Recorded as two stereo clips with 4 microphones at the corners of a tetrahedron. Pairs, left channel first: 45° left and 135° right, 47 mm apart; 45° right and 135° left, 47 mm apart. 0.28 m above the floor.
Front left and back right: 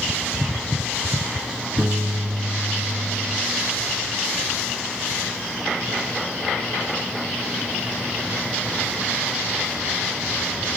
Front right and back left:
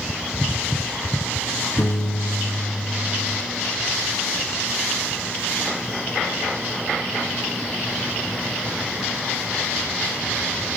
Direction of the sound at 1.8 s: 70° right.